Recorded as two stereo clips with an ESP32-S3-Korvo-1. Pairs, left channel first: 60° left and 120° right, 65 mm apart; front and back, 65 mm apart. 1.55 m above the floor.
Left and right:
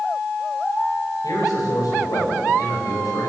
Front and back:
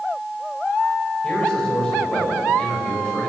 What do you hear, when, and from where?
1.2 s a man speaking: 75° left, 8 m